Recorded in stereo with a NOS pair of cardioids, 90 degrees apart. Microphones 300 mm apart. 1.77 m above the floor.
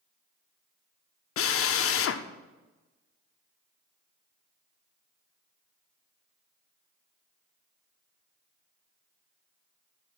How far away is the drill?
About 0.7 m.